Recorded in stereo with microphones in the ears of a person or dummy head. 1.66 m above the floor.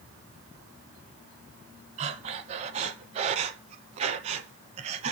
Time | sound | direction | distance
2.0 | breathing | 40° right (ahead or behind) | 1.1 m